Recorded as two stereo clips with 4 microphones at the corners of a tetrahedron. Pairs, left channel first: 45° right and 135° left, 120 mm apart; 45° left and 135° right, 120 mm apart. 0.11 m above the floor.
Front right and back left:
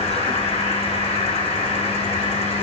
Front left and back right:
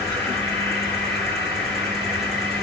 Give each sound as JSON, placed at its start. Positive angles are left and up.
{"t": 0.0, "sound": "an insect", "azimuth_deg": -45, "distance_m": 3.5}